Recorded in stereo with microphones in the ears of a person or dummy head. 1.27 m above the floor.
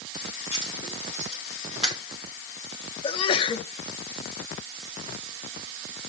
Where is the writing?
45° left (ahead or behind), 5.5 m.